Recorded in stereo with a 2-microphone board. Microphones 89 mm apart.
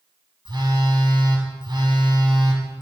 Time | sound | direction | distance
0.5 | a phone buzzing | 55° right (ahead or behind) | 1.8 m